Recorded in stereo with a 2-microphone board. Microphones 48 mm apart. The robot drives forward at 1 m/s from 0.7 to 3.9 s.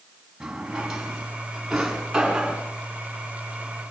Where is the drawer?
10° right (ahead or behind), 4 m; by 2.6 s 5° right (ahead or behind), 6 m.